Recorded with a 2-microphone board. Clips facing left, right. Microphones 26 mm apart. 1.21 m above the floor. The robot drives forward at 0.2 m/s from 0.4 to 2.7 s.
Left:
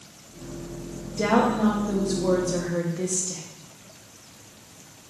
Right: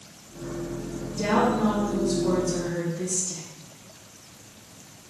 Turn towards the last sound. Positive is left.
turn(degrees=75)  # may be behind; listen again after turning